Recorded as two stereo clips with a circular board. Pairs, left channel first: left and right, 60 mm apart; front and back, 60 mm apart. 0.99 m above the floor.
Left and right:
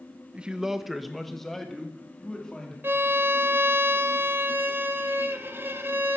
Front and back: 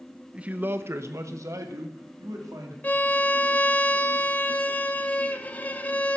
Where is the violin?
55° right, 0.8 m.